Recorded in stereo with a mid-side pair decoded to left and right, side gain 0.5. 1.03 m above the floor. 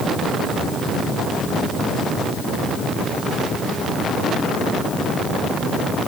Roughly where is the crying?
I don't hear crying.